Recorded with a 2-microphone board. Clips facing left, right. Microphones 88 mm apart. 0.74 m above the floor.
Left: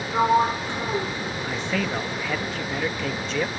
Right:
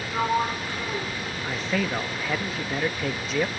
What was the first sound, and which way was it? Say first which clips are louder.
A sliding door: left 5 dB; 25° left (ahead or behind).